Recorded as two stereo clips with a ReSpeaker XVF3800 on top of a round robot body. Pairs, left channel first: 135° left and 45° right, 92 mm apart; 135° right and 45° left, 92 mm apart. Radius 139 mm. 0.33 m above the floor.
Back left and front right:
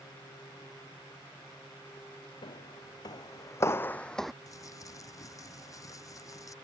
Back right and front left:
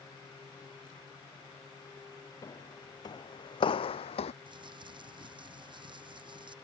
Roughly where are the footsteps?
Behind.